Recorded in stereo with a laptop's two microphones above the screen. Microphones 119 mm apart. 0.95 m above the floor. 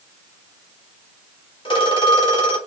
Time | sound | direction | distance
1.6 | a phone ringing | 45° left (ahead or behind) | 1.3 m